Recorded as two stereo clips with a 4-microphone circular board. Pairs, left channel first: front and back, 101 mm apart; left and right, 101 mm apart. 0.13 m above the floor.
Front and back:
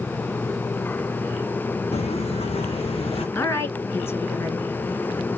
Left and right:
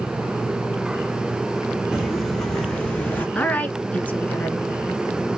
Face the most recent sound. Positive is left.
turn(degrees=35)